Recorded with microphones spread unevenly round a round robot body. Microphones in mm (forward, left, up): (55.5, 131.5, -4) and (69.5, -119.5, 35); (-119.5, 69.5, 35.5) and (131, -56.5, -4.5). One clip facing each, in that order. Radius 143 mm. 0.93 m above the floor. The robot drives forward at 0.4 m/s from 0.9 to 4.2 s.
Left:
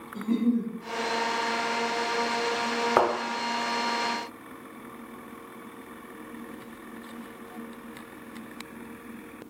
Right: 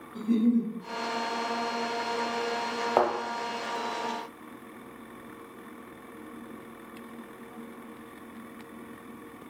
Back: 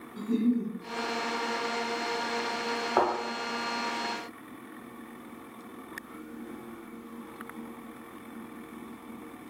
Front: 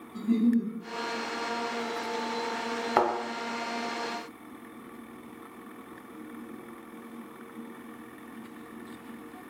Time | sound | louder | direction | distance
0.1 | a giggle | right 1 dB, front 2 dB | straight ahead | 1.3 m
3.0 | a thud | left 1 dB, even | 25° left | 0.9 m